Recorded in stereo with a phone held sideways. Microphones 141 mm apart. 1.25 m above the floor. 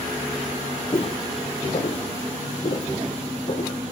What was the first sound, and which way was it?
Footsteps, 40° left (ahead or behind).